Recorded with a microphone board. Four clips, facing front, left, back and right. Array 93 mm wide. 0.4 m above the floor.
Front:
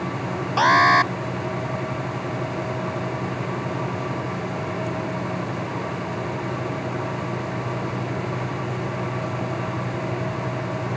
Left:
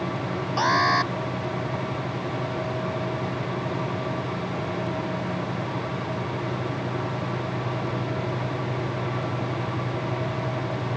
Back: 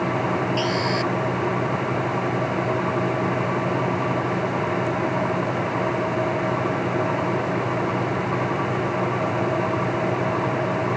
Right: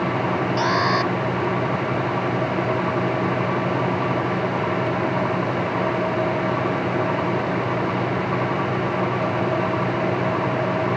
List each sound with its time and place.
0.6 s an alarm: straight ahead